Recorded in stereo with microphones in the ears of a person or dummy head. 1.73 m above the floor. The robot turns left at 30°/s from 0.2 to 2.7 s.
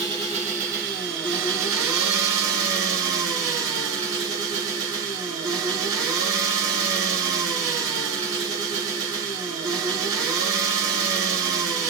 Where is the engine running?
30° right, 1.6 m; by 11.9 s 105° right, 1.6 m.